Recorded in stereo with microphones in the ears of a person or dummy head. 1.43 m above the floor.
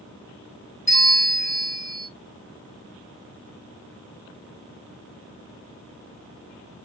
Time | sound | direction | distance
0.9 | a bell | 30° left (ahead or behind) | 0.9 m